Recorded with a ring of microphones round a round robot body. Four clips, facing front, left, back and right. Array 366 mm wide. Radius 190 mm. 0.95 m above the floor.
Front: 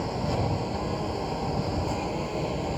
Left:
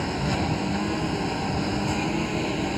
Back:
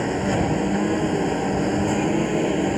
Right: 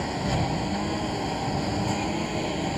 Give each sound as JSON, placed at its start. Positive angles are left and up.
{"t": 0.0, "sound": "a lawn mower", "azimuth_deg": 170}